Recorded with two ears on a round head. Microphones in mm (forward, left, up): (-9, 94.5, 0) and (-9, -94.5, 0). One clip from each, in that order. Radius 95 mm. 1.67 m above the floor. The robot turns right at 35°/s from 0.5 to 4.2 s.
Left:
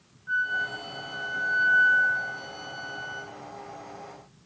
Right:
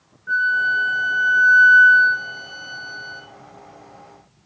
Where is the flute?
140° right, 2 m; by 3.2 s 45° right, 2 m.